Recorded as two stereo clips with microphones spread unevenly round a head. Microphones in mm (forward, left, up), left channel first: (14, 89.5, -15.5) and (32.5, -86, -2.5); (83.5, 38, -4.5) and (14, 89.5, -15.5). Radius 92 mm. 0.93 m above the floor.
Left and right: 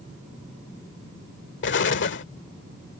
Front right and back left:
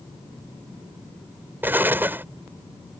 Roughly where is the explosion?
Left.